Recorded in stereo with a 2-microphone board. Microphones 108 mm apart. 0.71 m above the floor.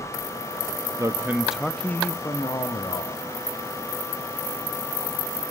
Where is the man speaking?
30° right (ahead or behind), 0.8 m; by 3.4 s 50° left (ahead or behind), 1.6 m.